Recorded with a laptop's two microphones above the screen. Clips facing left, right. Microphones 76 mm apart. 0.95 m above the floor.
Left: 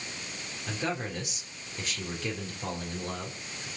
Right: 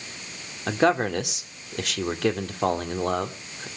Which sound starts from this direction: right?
A man speaking, at 0.7 s.